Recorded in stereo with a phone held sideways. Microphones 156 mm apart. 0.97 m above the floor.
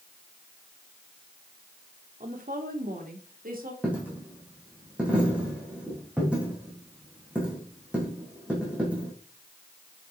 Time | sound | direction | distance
2.2 | a woman speaking | 65° right (ahead or behind) | 2 m
3.8 | a dropped coin | 10° right (ahead or behind) | 4.5 m